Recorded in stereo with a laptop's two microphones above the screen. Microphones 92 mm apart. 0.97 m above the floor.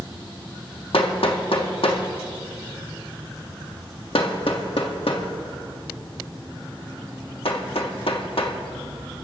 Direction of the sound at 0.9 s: 75° left (ahead or behind).